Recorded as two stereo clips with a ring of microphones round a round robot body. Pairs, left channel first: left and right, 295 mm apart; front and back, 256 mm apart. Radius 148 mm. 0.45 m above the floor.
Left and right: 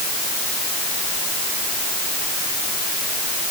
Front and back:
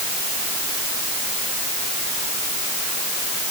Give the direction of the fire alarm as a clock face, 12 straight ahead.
No fire alarm in this recording.